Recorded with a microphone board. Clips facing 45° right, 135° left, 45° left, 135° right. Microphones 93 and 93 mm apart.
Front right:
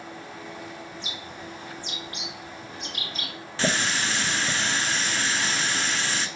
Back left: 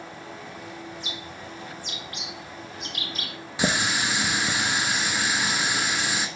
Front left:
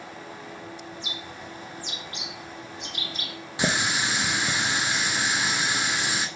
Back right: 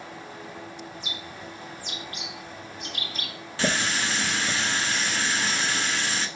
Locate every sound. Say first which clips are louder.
0.9 s a bird: back left 1 dB, even; straight ahead, 1.9 m
3.6 s a running tap: back left 1 dB, even; 85° left, 0.7 m